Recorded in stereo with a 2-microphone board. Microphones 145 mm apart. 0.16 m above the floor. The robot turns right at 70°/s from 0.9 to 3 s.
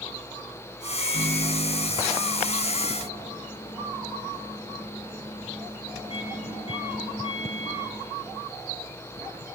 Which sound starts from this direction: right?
A microwave, at 1.0 s.